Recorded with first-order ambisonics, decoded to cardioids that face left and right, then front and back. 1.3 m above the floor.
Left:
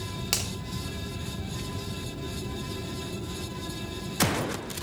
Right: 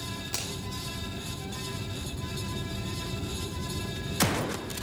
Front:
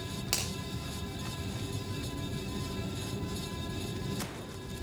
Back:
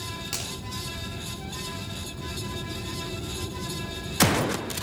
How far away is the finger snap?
About 3.5 m.